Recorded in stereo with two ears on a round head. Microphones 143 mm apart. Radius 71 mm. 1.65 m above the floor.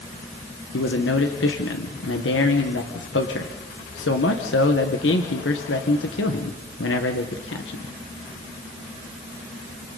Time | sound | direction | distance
0.7 | a man speaking | 85° left | 1.6 m